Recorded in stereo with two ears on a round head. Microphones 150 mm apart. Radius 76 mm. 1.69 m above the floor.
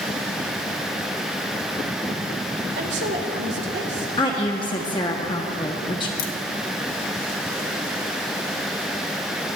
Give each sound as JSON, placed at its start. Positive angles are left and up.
{"t": 2.8, "sound": "a woman speaking", "side_deg": -70, "distance_m": 1.9}
{"t": 4.2, "sound": "a woman speaking", "side_deg": 25, "distance_m": 1.0}
{"t": 6.2, "sound": "a crack", "side_deg": 55, "distance_m": 1.6}